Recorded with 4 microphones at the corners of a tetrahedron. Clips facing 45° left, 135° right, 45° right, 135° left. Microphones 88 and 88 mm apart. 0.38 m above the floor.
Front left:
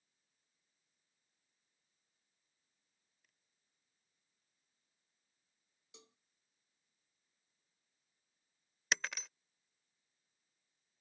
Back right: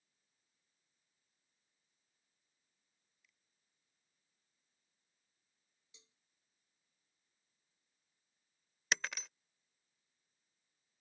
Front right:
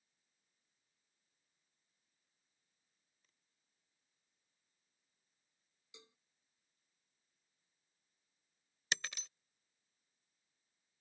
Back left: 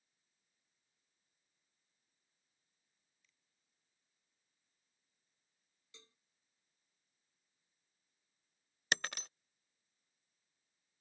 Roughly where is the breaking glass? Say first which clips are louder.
Even, back left 4 dB; behind left.